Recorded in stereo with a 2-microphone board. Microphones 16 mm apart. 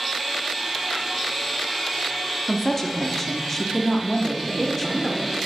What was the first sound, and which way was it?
A woman speaking, 20° left (ahead or behind).